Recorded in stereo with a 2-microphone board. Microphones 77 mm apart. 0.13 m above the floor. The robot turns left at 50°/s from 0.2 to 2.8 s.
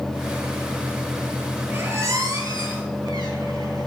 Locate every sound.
1.7 s a squeak: 30° right (ahead or behind), 0.5 m; by 3.9 s 65° right (ahead or behind), 0.5 m